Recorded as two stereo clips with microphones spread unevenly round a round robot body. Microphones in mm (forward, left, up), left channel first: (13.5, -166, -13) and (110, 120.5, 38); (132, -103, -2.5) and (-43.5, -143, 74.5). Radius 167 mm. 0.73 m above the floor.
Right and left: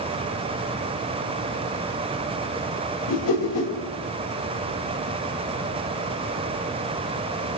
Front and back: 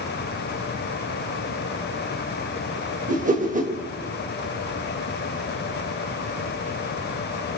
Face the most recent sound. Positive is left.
turn(degrees=-120)